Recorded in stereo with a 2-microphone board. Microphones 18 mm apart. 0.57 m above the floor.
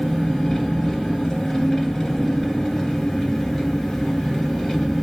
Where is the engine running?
30° left (ahead or behind), 2 m.